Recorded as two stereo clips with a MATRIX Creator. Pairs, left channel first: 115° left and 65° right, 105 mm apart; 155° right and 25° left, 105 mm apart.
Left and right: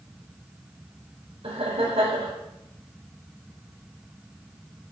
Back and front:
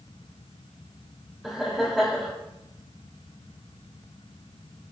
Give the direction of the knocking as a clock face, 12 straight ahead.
I don't hear knocking.